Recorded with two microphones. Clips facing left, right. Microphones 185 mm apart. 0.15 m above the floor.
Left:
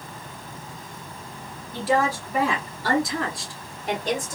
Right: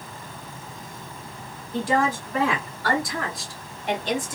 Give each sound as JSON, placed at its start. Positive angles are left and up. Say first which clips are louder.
{"t": 1.7, "sound": "a woman speaking", "louder": "even", "side_deg": 0, "distance_m": 1.9}